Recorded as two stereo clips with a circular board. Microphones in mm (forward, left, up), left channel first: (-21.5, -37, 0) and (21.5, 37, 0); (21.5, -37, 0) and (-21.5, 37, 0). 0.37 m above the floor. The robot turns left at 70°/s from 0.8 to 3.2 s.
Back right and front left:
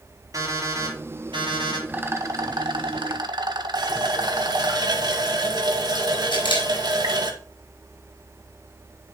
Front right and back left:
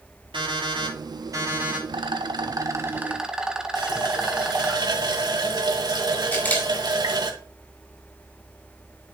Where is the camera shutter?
125° right, 4 m.